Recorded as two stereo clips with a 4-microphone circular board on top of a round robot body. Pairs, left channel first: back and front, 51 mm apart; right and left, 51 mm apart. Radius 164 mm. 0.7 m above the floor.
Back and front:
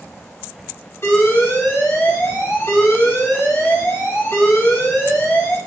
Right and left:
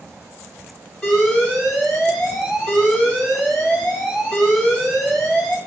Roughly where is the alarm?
Behind.